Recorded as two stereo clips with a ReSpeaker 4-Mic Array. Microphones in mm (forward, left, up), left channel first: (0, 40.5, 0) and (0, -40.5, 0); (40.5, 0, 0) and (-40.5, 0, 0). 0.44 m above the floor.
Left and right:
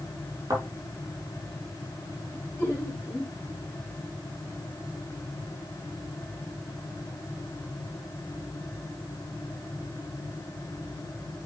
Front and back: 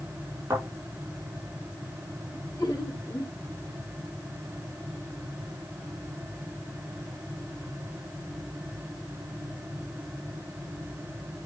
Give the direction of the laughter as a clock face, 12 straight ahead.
11 o'clock.